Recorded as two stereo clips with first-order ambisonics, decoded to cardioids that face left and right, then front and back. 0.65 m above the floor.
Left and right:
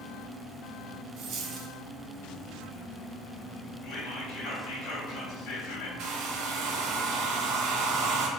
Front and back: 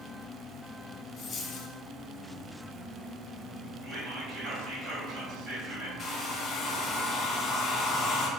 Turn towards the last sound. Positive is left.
turn(degrees=-65)